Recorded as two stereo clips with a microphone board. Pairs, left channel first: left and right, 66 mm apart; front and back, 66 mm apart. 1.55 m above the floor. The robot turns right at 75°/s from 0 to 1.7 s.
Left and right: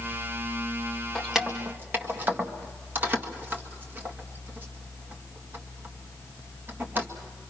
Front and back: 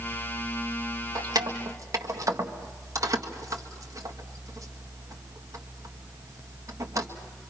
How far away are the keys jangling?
About 1.7 m.